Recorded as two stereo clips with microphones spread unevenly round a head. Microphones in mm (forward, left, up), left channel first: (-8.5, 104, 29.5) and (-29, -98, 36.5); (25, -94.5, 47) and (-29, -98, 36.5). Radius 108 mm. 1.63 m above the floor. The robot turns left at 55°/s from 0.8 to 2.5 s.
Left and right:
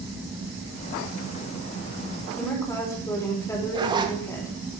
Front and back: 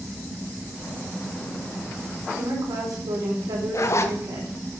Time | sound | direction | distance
2.4 | a woman speaking | 170° left | 5 m
3.7 | a zipper | 25° right | 1.5 m